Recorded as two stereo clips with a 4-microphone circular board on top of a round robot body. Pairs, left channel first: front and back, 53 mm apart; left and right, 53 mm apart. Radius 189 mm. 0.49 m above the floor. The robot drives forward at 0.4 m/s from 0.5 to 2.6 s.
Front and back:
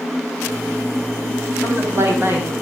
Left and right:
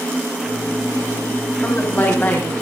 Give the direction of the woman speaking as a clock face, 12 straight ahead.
7 o'clock.